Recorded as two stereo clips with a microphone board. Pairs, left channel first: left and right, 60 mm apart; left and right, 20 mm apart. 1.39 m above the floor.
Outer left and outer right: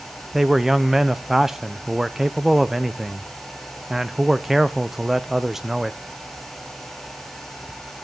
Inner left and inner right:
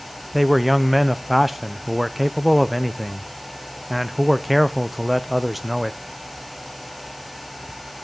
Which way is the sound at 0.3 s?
5° right (ahead or behind).